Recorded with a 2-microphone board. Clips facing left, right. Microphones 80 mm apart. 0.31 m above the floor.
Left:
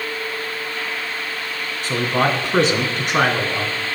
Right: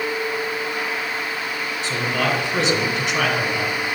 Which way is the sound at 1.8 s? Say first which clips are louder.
Left 4 dB; 45° left (ahead or behind).